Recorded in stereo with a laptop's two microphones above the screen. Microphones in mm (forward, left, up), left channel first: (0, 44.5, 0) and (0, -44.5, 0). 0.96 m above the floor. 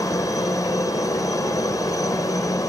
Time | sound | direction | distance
0.0 | a helicopter | 40° left (ahead or behind) | ?